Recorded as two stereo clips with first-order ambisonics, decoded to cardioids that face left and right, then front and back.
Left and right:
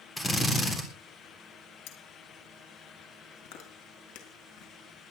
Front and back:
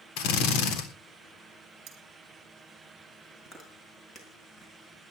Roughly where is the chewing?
Left.